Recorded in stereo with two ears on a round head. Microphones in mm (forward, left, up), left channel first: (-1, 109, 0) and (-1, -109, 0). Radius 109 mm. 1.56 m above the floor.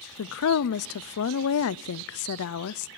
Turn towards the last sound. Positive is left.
turn(degrees=65)  # may be behind; listen again after turning